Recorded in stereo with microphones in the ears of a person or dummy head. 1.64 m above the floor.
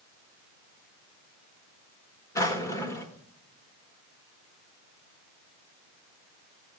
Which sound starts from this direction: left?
A drawer, at 2.4 s.